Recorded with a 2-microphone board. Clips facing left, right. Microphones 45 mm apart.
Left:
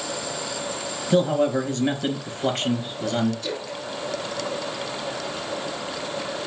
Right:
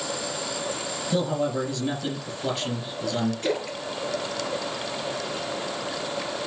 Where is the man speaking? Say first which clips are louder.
Left 6 dB; 50° left (ahead or behind), 3.5 m.